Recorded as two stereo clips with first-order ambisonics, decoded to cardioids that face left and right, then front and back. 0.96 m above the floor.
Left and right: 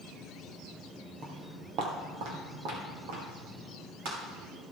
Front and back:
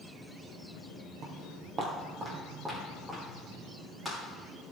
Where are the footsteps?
140° right, 1.6 m; by 4.2 s 95° right, 5.5 m.